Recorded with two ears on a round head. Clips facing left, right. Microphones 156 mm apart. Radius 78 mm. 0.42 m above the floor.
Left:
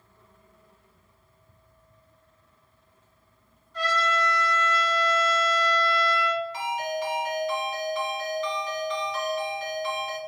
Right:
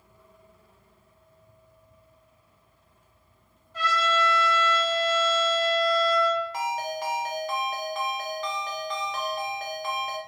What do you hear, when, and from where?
3.7 s a trumpet: 5° right (ahead or behind), 1.7 m
6.5 s a ringtone: 40° right (ahead or behind), 0.5 m